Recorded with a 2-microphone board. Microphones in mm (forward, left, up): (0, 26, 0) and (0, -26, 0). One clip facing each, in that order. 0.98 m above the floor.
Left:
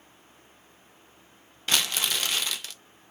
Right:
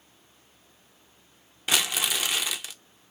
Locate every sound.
1.7 s crumpling: 10° right (ahead or behind), 0.5 m